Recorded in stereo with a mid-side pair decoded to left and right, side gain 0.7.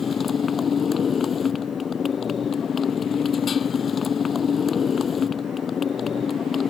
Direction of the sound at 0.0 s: 30° left.